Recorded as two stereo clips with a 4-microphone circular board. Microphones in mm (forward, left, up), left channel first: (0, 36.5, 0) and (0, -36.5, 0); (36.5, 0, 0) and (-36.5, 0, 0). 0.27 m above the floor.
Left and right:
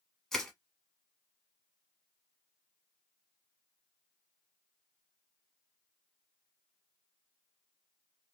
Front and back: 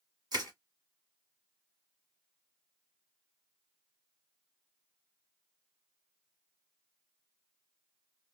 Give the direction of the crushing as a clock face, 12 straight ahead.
6 o'clock.